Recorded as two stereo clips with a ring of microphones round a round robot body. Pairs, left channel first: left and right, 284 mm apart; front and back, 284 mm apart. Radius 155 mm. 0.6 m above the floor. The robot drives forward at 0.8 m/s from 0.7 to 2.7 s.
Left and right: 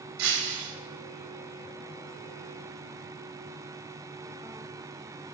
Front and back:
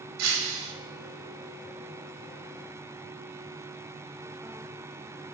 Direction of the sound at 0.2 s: 135° right.